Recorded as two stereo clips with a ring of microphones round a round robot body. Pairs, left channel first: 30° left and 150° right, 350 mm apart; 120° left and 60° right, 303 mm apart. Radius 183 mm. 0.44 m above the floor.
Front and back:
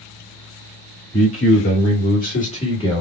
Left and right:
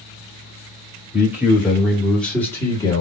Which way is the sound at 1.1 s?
15° left.